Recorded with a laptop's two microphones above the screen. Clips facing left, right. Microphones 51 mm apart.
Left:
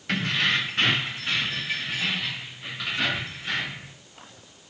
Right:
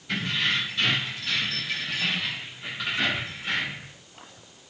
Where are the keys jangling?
75° left (ahead or behind), 0.9 m; by 3.9 s 15° right (ahead or behind), 1.9 m.